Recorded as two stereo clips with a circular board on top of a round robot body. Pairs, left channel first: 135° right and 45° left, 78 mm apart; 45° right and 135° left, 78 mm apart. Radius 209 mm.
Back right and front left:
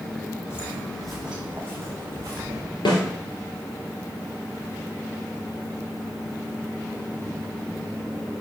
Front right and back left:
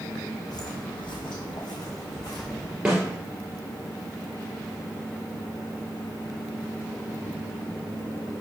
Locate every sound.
0.5 s footsteps: 80° right, 1.3 m; by 2.8 s 5° left, 2.5 m
2.9 s a snare drum: 145° right, 2.5 m